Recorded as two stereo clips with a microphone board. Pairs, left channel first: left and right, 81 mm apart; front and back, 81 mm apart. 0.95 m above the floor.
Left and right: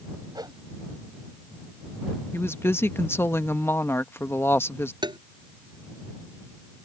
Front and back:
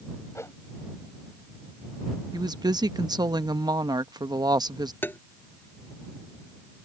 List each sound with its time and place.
0.3 s a whoosh: 55° right
2.3 s a woman speaking: 150° left
5.0 s tapping: 65° right